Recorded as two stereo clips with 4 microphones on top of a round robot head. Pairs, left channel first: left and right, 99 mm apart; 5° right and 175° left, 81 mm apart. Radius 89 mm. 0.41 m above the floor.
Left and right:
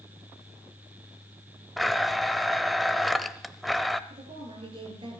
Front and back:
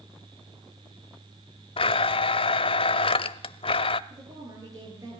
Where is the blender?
Straight ahead, 0.7 m.